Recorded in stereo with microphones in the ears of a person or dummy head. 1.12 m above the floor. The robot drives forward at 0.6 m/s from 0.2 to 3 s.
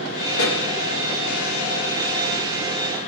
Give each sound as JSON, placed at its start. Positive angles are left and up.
{"t": 0.3, "sound": "a pop", "side_deg": 75, "distance_m": 4.0}